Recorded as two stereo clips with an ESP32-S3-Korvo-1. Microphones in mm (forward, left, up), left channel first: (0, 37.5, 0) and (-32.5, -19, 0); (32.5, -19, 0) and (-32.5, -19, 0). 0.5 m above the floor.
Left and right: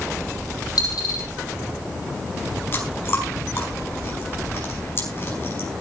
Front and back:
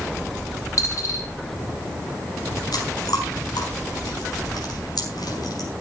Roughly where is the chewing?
Ahead.